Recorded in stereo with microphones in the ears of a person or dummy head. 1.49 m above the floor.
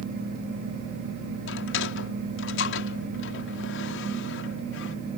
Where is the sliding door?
75° left (ahead or behind).